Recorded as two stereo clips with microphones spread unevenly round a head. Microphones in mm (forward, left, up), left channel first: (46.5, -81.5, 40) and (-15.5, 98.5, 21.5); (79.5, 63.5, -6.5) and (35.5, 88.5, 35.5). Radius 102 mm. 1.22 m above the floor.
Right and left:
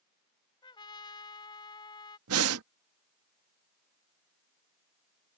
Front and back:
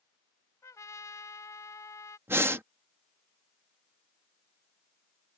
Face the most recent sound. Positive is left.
turn(degrees=125)